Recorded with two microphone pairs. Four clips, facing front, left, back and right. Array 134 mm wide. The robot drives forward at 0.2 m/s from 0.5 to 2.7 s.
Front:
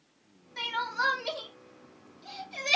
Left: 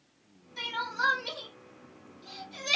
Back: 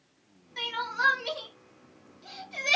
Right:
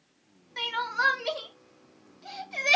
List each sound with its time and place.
0.6 s crying: 85° right, 1.2 m; by 2.8 s 105° right, 1.2 m